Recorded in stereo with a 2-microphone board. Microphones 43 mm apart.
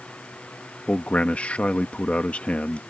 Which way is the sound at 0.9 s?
35° left (ahead or behind).